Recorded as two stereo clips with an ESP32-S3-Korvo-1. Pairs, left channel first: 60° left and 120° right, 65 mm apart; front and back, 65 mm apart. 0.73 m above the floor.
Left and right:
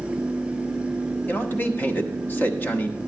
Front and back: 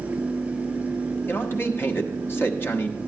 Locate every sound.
1.3 s a man speaking: 20° left, 1.2 m